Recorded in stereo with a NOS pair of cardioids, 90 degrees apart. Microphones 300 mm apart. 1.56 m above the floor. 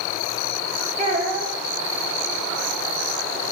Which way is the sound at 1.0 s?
25° right.